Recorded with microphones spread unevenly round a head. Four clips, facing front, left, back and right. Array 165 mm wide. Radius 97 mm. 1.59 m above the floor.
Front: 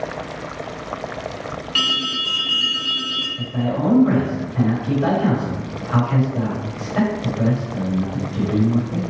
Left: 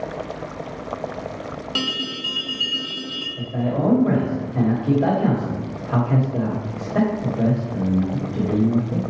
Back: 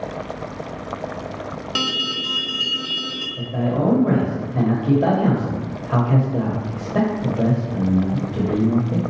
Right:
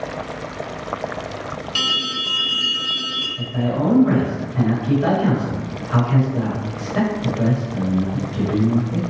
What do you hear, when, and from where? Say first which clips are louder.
1.8 s an alarm: right 1 dB, back 1 dB; 140° left, 0.8 m
3.4 s a man speaking: right 1 dB, back 1 dB; 140° left, 1.4 m